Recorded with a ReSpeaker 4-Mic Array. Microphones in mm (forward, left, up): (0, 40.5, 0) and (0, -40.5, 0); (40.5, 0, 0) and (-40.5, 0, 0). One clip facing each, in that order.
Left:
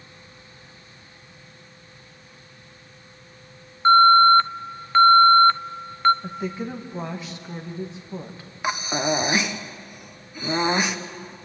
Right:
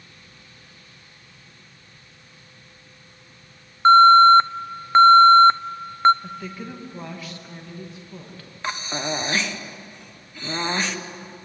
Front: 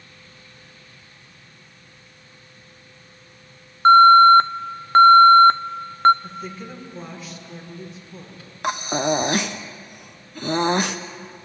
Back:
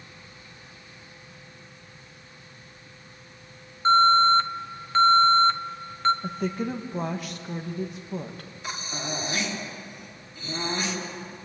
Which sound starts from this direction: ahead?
Breathing, at 8.6 s.